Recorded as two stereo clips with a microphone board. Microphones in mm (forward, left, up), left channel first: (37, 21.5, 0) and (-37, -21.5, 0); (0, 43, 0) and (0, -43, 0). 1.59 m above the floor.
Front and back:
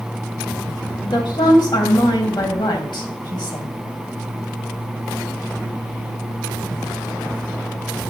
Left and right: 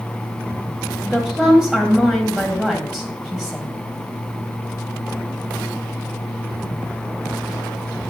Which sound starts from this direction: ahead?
A woman speaking, at 1.0 s.